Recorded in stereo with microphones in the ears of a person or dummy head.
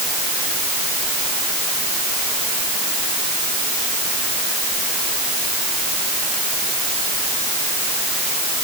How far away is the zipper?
I don't hear a zipper.